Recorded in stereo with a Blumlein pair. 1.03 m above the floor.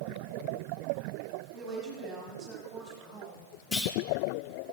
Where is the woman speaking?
30° right, 6 m; by 3.4 s 25° right, 5 m.